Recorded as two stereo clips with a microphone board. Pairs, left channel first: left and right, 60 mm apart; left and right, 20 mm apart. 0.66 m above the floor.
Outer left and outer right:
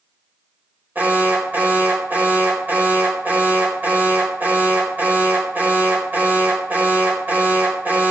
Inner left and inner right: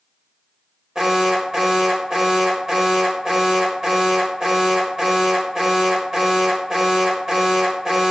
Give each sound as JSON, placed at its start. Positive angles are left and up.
{"t": 0.9, "sound": "an alarm", "side_deg": -30, "distance_m": 4.0}